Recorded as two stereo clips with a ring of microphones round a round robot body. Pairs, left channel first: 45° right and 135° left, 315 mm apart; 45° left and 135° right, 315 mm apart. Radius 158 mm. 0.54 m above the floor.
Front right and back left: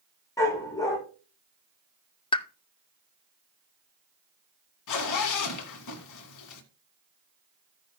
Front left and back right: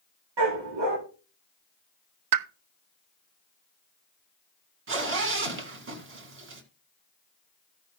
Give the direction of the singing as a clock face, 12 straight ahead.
I don't hear singing.